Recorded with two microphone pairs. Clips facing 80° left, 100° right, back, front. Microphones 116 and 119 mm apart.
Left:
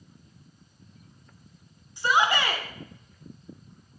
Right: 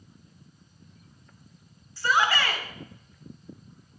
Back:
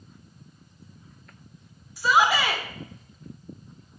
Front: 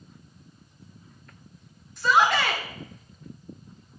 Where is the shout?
110° left, 0.9 m.